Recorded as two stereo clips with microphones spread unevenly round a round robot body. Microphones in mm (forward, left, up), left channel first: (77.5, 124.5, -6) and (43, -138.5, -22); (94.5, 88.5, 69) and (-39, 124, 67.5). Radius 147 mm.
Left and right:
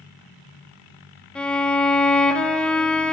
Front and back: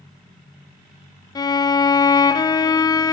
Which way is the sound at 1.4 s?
10° right.